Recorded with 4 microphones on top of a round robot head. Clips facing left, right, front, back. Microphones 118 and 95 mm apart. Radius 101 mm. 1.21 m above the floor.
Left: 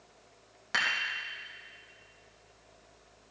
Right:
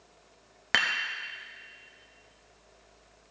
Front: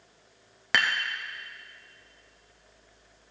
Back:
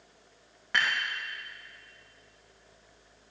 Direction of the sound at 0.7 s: 40° right.